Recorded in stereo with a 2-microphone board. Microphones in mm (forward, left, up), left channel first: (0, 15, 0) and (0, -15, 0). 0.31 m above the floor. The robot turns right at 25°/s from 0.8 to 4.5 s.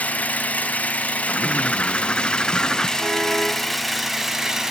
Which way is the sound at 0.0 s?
105° left.